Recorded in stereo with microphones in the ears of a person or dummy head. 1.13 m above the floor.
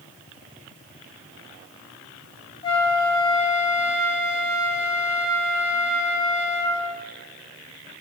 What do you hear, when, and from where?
2.6 s a flute: 25° left (ahead or behind), 0.9 m